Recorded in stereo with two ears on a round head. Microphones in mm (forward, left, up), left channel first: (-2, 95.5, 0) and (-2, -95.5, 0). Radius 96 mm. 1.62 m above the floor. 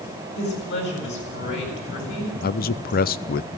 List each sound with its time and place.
0.4 s a woman speaking: 60° left (ahead or behind), 8 m
2.4 s a man speaking: 45° left (ahead or behind), 0.5 m